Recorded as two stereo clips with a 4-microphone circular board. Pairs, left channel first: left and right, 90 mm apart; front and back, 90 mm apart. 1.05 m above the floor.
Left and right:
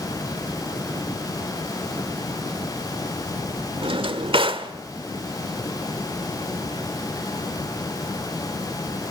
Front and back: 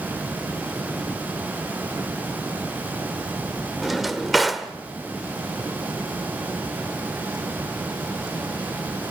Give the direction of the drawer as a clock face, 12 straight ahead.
3 o'clock.